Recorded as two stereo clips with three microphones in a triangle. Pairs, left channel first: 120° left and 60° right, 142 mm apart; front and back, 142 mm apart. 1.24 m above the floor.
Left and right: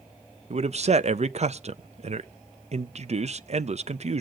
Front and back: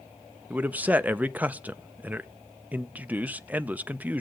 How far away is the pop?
I don't hear a pop.